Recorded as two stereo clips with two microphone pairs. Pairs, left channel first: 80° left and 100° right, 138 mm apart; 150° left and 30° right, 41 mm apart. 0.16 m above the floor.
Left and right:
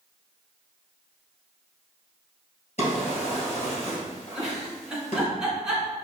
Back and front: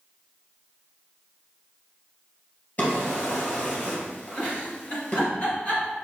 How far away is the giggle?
About 1.8 m.